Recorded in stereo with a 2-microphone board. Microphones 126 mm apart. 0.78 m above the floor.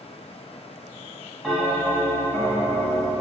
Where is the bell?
10° left (ahead or behind), 1.1 m.